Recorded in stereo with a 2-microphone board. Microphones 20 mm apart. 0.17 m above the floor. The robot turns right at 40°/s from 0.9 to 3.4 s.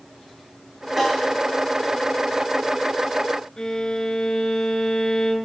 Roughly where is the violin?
Left.